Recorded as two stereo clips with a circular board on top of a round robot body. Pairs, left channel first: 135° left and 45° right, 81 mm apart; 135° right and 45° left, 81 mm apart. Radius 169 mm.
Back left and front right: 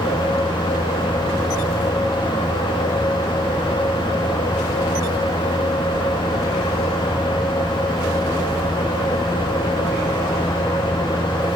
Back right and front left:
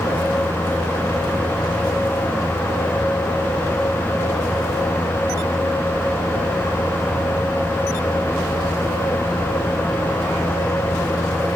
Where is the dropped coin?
I don't hear a dropped coin.